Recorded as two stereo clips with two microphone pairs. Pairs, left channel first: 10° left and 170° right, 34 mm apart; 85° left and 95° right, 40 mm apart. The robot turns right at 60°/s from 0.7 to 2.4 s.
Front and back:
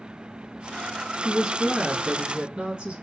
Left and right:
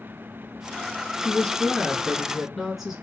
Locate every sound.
1.2 s a woman speaking: 120° left, 1.3 m; by 3.0 s 175° right, 1.3 m